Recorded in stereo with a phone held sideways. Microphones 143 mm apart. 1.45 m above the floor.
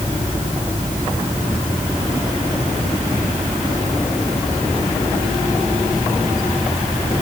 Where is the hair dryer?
No hair dryer in this recording.